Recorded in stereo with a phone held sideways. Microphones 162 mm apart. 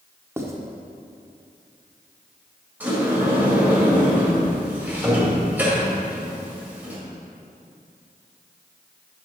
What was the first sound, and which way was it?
Writing, 15° right (ahead or behind).